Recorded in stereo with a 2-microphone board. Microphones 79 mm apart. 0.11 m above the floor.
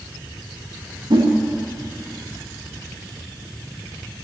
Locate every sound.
1.1 s a whoosh: 70° right (ahead or behind), 4.5 m